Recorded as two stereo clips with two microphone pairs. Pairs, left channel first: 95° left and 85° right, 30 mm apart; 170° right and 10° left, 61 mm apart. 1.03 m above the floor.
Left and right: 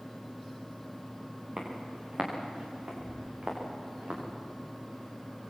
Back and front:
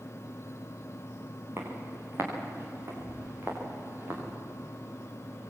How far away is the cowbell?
No cowbell in this recording.